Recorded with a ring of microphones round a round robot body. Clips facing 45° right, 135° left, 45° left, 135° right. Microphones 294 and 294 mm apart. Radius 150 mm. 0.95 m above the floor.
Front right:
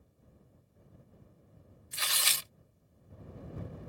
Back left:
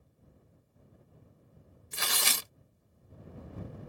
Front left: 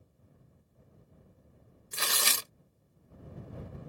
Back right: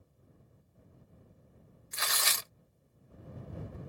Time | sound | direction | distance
1.9 | tearing paper | 100° left | ?